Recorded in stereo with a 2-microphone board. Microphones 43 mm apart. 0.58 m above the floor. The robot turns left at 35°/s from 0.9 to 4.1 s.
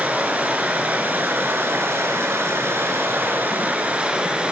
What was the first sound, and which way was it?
Running water, 40° right.